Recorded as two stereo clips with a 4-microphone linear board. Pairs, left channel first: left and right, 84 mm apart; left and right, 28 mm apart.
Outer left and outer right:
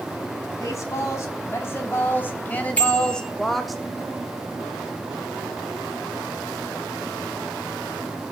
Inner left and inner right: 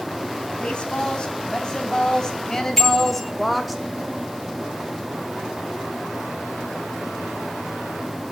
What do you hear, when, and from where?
0.6 s a woman speaking: 40° left (ahead or behind), 4.5 m; by 3.8 s centre (ahead or behind), 2.5 m
2.8 s a bicycle bell: 20° left (ahead or behind), 7.5 m